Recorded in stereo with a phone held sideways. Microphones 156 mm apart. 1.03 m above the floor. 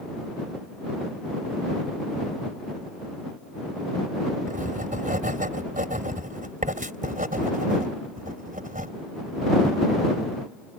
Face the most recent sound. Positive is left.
turn(degrees=-60)  # may be behind; listen again after turning